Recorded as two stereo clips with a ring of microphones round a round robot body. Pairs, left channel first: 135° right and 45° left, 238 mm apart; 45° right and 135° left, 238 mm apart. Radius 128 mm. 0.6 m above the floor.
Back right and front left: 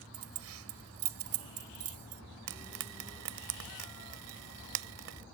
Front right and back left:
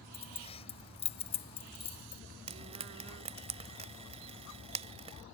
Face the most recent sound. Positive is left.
turn(degrees=70)